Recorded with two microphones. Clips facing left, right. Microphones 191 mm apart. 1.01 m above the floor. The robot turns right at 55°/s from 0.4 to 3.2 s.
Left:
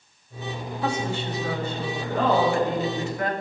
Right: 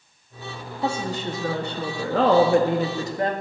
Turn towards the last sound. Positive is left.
turn(degrees=-30)